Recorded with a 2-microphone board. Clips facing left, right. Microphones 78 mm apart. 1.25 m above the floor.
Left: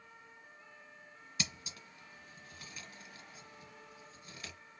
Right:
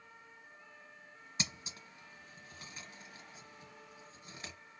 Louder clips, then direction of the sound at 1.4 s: Even; 25° right (ahead or behind).